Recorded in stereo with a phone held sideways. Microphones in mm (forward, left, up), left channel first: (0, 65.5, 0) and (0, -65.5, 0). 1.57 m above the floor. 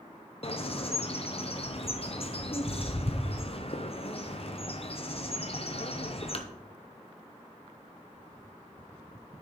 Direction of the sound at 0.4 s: 50° left (ahead or behind).